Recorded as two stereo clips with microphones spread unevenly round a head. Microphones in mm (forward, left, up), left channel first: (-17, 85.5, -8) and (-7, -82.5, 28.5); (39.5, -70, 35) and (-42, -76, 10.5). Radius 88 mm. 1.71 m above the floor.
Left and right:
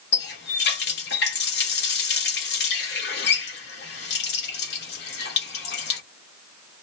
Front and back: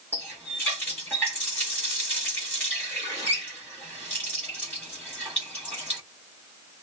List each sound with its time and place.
0.1 s a running tap: 70° left, 1.3 m